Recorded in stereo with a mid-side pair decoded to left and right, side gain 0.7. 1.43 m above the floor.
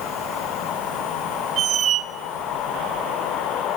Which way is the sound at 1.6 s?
40° right.